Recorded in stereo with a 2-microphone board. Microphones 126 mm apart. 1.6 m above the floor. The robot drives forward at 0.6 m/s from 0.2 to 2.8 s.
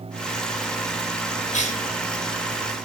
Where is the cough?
75° left (ahead or behind), 2.5 m; by 1.9 s 70° left (ahead or behind), 3 m.